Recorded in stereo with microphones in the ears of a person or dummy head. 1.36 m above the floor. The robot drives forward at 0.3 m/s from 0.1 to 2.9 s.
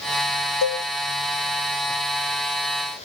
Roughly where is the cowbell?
Left.